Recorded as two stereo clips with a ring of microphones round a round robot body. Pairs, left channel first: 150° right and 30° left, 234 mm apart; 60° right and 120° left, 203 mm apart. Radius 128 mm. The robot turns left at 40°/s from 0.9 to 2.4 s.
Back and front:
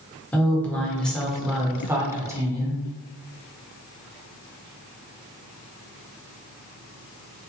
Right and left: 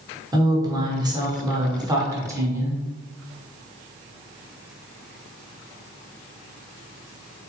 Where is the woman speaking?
135° left, 1.2 m; by 2.8 s 75° left, 1.2 m.